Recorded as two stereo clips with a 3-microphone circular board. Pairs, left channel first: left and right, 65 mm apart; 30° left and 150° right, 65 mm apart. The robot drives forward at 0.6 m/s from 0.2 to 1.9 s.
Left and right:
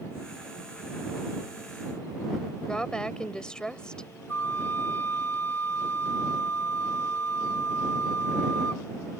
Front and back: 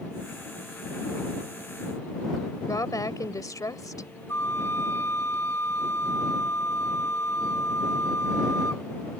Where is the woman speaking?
15° left.